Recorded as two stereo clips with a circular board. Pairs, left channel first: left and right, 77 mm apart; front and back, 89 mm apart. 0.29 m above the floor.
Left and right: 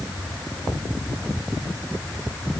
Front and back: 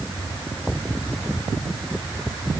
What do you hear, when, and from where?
Only background noise.